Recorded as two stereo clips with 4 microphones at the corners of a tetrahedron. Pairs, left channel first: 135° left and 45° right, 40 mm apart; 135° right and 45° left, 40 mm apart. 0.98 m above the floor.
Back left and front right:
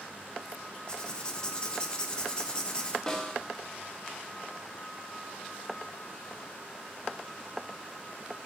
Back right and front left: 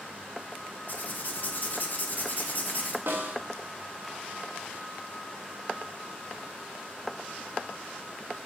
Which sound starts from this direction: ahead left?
A snare drum, at 3.1 s.